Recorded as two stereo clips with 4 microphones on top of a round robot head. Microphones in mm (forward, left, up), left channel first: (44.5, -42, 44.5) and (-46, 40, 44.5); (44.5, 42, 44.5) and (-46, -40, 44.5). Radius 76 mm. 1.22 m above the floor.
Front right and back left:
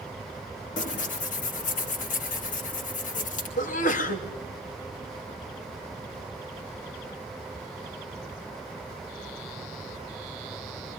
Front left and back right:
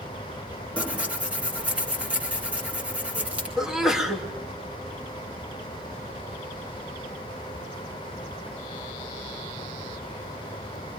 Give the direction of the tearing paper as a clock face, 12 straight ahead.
2 o'clock.